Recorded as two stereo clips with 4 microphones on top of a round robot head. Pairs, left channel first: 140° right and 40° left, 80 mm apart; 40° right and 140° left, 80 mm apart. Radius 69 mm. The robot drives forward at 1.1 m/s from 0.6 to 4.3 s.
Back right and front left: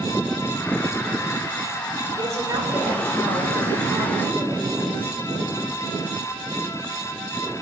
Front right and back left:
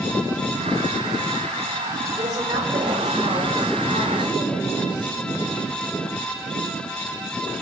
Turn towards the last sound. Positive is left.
turn(degrees=110)